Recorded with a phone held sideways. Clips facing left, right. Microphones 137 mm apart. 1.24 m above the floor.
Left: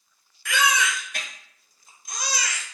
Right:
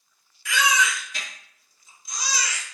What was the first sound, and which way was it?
A baby crying, 55° left (ahead or behind).